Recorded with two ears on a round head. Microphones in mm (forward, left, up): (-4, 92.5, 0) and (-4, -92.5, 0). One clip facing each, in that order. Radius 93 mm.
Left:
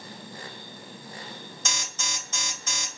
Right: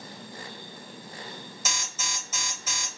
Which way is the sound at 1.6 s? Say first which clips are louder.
Left 1 dB; 5° right (ahead or behind).